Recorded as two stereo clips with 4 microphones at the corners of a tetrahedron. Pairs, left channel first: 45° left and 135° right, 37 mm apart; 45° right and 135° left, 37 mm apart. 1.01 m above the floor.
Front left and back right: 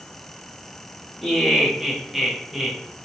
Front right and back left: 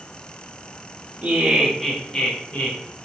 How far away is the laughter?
About 0.6 m.